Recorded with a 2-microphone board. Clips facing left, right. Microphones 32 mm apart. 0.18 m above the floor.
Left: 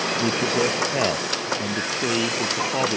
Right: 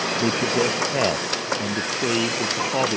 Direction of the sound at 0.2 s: 10° right (ahead or behind).